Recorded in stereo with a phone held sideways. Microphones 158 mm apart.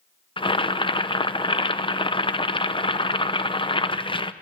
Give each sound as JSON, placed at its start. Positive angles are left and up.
{"t": 0.4, "sound": "boiling", "side_deg": 30, "distance_m": 0.6}